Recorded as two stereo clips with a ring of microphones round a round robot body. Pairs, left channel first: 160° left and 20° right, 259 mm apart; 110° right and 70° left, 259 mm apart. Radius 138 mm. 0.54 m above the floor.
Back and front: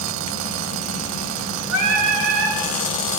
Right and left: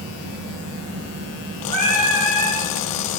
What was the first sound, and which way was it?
Singing, 5° left.